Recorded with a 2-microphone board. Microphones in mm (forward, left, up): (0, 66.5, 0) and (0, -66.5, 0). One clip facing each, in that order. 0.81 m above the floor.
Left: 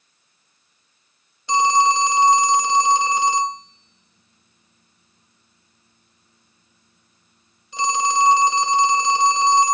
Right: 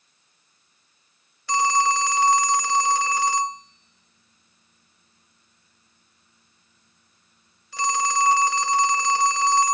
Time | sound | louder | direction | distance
1.5 | a phone ringing | left 4 dB | 20° left (ahead or behind) | 0.5 m